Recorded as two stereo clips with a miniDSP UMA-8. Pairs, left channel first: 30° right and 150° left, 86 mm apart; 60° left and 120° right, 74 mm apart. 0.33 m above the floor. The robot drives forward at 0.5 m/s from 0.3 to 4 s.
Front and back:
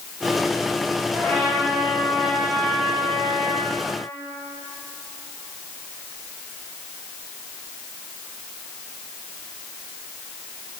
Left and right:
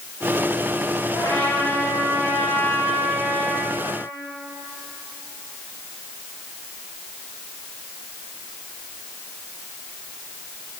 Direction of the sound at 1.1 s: 105° right.